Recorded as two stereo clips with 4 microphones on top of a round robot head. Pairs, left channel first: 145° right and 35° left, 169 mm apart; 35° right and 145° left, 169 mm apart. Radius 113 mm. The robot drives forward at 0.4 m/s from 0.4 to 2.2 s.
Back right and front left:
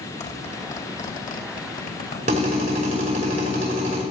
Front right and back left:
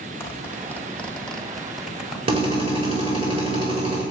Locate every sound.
0.2 s a zipper: 110° right, 1.7 m; by 2.2 s 130° right, 2.0 m
2.3 s a drill: 85° left, 5 m